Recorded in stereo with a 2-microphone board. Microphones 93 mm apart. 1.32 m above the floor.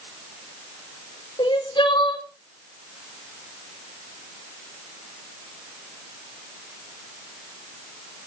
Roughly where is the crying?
Left.